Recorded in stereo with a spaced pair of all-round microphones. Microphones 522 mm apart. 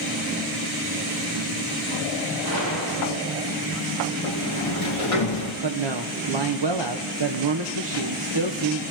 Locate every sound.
2.4 s a gunshot: 50° left (ahead or behind), 5.5 m
4.2 s a sliding door: 75° left (ahead or behind), 1.9 m
5.6 s a man speaking: 50° right (ahead or behind), 0.9 m